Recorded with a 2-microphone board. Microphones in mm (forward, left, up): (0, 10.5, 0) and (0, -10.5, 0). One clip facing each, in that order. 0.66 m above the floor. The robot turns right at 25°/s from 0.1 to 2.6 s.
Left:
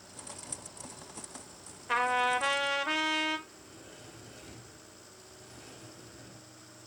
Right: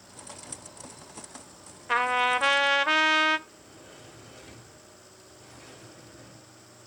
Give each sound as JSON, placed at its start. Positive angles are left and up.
{"t": 1.9, "sound": "a trumpet", "side_deg": -15, "distance_m": 0.7}
{"t": 3.5, "sound": "a sliding door", "side_deg": -15, "distance_m": 3.0}